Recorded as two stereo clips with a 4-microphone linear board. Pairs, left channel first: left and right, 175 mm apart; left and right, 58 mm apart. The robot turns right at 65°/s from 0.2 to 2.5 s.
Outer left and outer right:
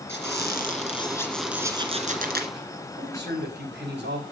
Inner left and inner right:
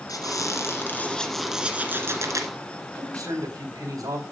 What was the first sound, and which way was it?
A squeak, 100° left.